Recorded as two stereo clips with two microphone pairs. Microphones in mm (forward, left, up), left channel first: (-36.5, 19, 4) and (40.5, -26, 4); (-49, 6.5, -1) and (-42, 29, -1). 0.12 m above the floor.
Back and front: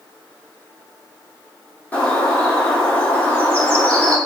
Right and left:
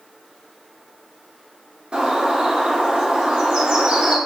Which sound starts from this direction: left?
A bird, at 1.9 s.